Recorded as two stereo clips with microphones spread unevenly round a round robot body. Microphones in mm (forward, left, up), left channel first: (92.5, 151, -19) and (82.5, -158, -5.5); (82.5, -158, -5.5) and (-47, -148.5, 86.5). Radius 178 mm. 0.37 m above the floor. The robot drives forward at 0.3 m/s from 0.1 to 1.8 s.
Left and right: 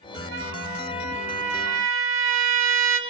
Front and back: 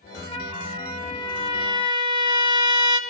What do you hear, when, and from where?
0.3 s a trumpet: 40° right, 6 m; by 3.0 s 45° right, 5.5 m